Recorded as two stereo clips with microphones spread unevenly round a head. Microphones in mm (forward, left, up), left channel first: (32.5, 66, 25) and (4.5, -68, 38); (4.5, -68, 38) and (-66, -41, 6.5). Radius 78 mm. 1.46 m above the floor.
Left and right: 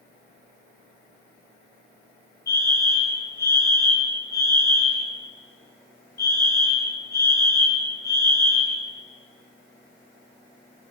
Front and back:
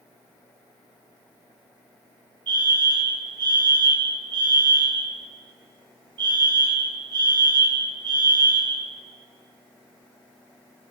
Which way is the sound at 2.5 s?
145° left.